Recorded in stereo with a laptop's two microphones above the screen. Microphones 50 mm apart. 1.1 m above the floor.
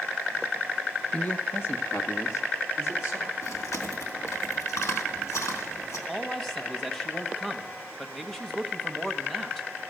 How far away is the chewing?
About 3 m.